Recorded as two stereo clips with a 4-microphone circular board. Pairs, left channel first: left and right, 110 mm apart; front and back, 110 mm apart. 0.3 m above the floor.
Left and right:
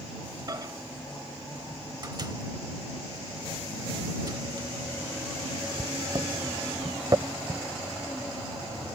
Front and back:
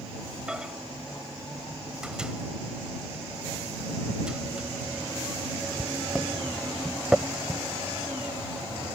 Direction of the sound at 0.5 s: 105° right.